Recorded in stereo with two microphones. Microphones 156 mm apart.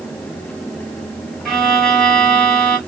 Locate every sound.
1.4 s a violin: centre (ahead or behind), 1.0 m